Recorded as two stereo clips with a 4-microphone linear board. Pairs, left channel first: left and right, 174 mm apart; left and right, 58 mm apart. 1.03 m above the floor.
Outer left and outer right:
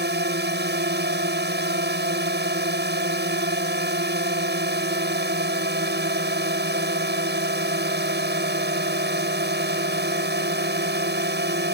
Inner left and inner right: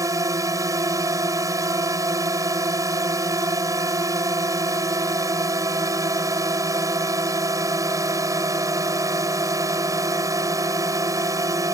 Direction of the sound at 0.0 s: 80° right.